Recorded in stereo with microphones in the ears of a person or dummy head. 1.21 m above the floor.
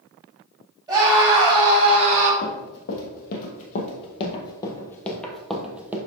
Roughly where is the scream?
Right.